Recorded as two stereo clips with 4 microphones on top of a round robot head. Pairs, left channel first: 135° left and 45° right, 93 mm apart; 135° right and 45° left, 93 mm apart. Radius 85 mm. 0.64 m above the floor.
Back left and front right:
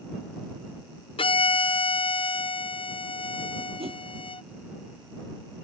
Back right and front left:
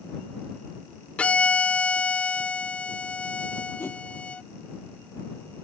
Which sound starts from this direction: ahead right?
A whoosh, at 3.8 s.